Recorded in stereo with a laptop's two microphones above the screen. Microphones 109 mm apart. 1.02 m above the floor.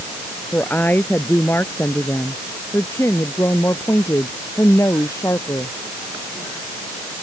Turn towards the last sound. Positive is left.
turn(degrees=30)  # may be behind; listen again after turning